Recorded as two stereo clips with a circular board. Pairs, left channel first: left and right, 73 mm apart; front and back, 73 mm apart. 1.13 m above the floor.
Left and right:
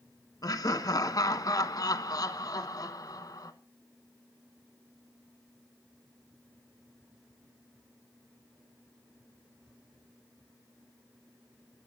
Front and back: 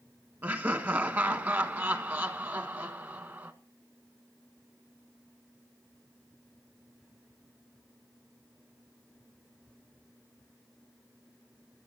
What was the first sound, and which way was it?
Laughter, 120° left.